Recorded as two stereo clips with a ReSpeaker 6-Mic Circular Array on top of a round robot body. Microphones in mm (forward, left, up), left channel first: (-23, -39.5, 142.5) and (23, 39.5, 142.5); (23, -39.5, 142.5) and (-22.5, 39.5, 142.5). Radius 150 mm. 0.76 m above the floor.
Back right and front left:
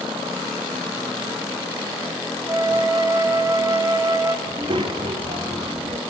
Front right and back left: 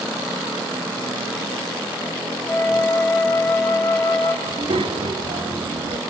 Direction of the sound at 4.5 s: 95° left.